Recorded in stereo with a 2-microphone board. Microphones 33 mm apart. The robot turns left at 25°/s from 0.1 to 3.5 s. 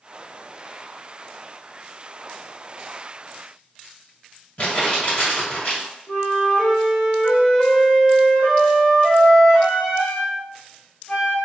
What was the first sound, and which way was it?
Crumpling, 50° left (ahead or behind).